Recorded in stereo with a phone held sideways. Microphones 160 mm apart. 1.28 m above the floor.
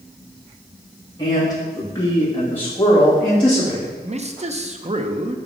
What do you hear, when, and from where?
1.2 s a man speaking: 25° left (ahead or behind), 2 m; by 3.9 s centre (ahead or behind), 3 m
4.0 s a man speaking: 45° right (ahead or behind), 0.6 m